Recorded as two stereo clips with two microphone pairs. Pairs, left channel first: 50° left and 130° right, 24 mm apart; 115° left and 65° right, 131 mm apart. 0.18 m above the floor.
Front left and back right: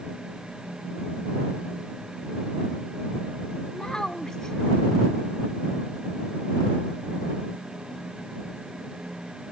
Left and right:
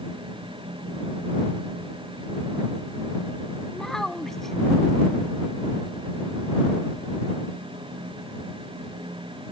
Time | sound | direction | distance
3.7 | a child speaking | 40° left | ?